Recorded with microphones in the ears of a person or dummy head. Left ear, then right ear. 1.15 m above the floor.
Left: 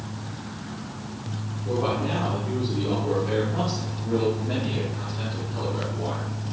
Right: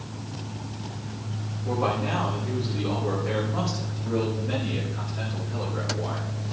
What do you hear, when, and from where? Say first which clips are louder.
1.6 s a man speaking: even; 45° right (ahead or behind), 3 m; by 6.3 s 15° right (ahead or behind), 5 m